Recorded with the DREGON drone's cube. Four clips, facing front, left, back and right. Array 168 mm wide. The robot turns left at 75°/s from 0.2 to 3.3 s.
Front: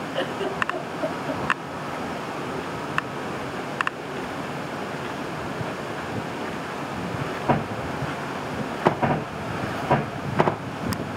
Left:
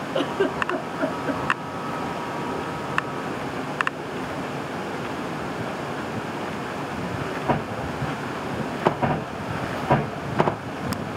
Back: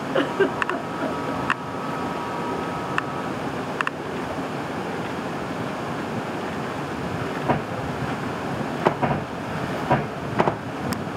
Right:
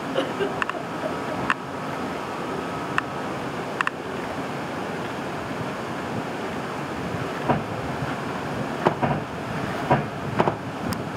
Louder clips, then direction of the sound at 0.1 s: Left 2 dB, back 6 dB; straight behind.